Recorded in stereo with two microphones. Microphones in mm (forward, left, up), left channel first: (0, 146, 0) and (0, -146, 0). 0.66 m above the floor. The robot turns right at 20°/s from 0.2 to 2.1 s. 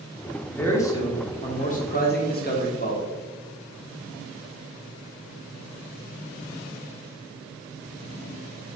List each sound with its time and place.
0.5 s a man speaking: 5° left, 1.1 m; by 3.1 s 40° left, 1.1 m